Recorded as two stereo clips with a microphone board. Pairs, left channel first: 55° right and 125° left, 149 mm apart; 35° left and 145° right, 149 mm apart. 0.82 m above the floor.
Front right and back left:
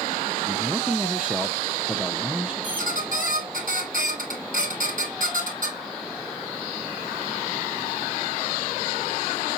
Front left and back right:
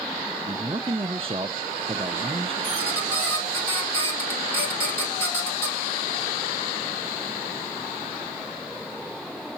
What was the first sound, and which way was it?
A man speaking, 155° right.